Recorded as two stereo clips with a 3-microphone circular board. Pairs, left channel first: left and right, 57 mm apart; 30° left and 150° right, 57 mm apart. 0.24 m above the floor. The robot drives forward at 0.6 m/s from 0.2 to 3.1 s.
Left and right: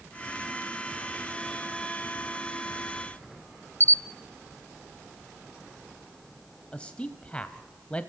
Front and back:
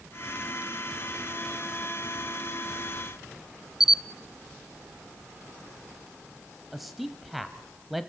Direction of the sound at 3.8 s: 130° left.